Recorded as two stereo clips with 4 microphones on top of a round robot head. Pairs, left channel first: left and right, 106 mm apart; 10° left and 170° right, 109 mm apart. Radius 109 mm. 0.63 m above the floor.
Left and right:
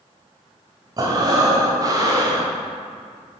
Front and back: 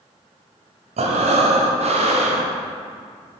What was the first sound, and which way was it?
Breathing, 145° right.